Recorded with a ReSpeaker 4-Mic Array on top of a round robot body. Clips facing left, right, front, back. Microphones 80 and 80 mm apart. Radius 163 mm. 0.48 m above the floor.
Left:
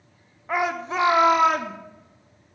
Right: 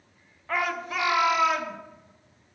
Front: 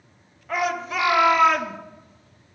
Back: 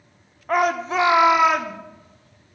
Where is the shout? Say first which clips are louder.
Left 4 dB, back 5 dB; 160° left, 1.4 m; by 1.8 s 90° left, 1.3 m.